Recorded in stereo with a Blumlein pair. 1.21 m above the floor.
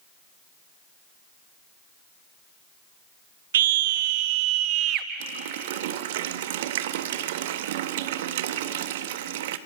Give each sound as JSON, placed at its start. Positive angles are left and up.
{"t": 3.5, "sound": "a scream", "azimuth_deg": -60, "distance_m": 1.3}
{"t": 5.2, "sound": "a running tap", "azimuth_deg": -55, "distance_m": 1.0}